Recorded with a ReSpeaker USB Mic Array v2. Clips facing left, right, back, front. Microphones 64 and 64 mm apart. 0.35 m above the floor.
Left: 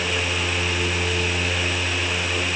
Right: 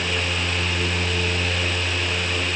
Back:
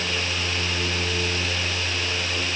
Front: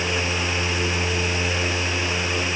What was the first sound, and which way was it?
Only background noise.